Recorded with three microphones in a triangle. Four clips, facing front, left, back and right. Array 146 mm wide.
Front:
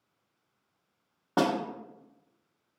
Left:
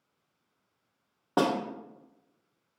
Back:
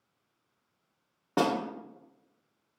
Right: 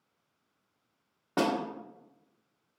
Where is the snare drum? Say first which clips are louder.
Left 2 dB, front 1 dB; 50° left, 1.1 m.